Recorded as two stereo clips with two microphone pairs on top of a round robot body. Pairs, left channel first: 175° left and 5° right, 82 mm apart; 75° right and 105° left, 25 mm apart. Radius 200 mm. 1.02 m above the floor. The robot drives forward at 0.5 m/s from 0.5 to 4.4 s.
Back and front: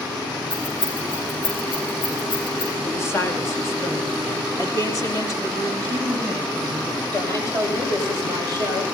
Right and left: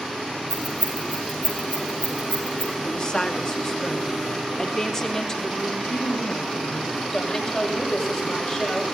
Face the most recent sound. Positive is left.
turn(degrees=-135)